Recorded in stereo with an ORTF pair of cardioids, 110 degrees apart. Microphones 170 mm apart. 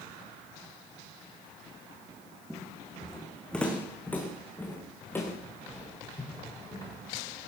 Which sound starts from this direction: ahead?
Footsteps, at 2.5 s.